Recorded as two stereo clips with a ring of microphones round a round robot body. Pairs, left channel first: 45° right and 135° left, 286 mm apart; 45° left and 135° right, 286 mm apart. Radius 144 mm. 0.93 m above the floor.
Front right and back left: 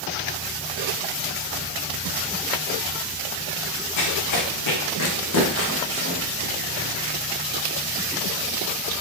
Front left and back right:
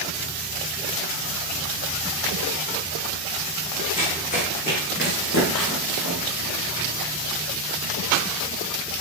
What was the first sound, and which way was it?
Running footsteps, 25° right.